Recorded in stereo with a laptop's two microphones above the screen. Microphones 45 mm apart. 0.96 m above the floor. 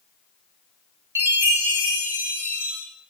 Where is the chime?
80° right, 3 m.